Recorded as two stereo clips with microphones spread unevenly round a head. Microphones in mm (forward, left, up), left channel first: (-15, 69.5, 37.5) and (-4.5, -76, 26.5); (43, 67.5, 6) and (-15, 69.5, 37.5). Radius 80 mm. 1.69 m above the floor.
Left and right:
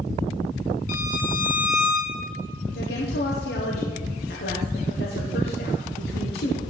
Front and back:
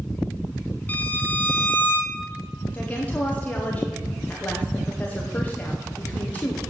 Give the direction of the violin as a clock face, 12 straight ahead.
10 o'clock.